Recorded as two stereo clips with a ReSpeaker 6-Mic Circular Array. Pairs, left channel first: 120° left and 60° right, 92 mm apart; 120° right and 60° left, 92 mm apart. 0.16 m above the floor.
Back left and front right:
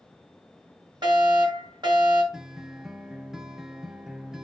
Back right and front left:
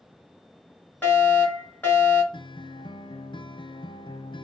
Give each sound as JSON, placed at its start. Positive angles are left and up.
{"t": 1.0, "sound": "a fire alarm", "azimuth_deg": -55, "distance_m": 3.5}
{"t": 2.3, "sound": "a guitar", "azimuth_deg": -145, "distance_m": 0.5}